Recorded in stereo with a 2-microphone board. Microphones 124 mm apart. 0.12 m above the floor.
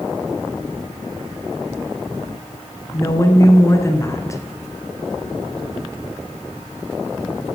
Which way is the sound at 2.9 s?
25° left (ahead or behind).